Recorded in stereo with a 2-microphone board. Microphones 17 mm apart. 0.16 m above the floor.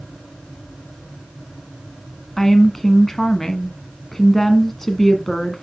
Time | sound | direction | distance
2.4 | a woman speaking | 20° left (ahead or behind) | 1.3 m